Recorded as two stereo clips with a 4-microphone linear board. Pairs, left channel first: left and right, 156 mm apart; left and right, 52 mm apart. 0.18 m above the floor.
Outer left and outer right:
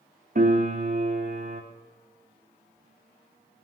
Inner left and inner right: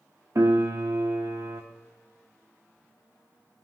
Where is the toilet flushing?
I don't hear a toilet flushing.